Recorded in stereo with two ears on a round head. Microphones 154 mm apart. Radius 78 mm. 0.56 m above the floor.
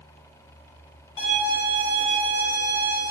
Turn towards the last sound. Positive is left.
turn(degrees=90)